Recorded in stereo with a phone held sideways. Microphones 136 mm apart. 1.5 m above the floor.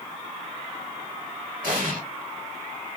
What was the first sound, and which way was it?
An explosion, 85° right.